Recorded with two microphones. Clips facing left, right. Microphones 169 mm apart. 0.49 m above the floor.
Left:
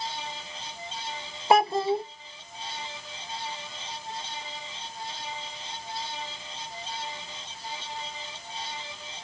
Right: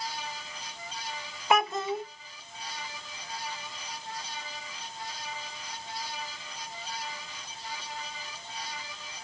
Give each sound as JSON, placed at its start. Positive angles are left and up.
{"t": 1.5, "sound": "a child speaking", "side_deg": 35, "distance_m": 0.7}